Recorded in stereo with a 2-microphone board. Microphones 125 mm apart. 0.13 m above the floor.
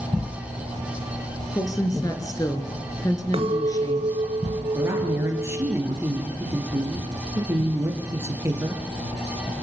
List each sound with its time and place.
1.5 s a woman speaking: 30° left (ahead or behind), 2 m
3.3 s a clink: 50° right (ahead or behind), 0.9 m
4.7 s a woman speaking: 20° right (ahead or behind), 3 m